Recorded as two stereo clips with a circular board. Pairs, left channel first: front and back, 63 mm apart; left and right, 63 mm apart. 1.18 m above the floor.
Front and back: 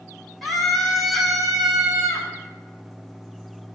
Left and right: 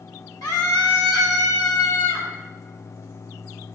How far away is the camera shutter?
No camera shutter in this recording.